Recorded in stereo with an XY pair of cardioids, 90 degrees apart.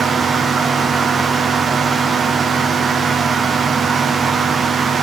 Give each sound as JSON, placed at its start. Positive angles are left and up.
{"t": 0.0, "sound": "a fan", "azimuth_deg": -45, "distance_m": 0.9}